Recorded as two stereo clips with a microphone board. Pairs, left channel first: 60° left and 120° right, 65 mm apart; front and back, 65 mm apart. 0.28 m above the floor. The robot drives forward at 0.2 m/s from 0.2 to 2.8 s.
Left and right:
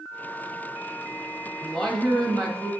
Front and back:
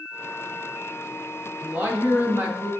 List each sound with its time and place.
1.6 s a woman speaking: 135° left, 1.3 m; by 2.7 s 145° left, 1.4 m